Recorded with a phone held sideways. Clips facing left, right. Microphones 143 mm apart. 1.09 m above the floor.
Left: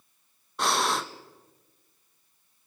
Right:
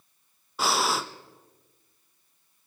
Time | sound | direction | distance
0.6 | breathing | 5° right (ahead or behind) | 0.6 m